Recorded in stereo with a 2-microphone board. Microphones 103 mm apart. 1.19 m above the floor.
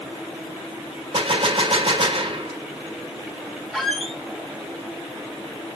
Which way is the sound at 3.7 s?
Centre (ahead or behind).